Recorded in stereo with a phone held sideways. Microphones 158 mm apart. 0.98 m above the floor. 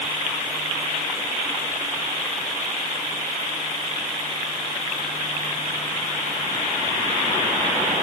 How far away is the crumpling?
I don't hear crumpling.